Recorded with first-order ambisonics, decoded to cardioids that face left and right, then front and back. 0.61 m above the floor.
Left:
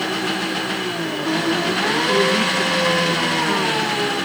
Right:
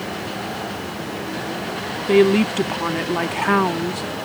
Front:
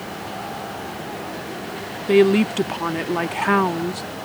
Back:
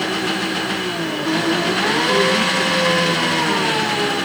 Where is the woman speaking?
45° right.